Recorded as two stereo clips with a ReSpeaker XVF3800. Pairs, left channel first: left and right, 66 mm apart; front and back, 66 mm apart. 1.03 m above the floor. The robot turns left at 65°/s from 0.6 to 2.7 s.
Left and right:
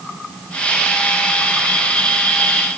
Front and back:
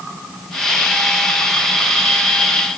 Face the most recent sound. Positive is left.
No sound to turn to.